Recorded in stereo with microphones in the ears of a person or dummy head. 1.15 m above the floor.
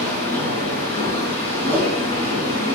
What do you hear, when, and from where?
0.0 s a machine running: 30° left (ahead or behind), 6 m
1.7 s a whoosh: 5° left (ahead or behind), 5.5 m